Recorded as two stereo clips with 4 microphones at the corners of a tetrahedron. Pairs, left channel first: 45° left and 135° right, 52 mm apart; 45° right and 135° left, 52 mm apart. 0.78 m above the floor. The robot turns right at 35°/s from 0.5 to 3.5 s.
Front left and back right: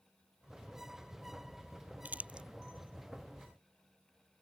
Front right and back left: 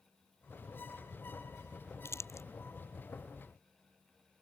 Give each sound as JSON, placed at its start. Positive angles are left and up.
{"t": 2.0, "sound": "crumpling", "azimuth_deg": -75}